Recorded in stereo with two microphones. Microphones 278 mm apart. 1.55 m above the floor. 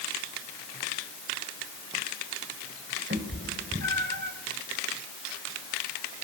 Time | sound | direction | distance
3.1 | a cat meowing | 45° right (ahead or behind) | 3.5 m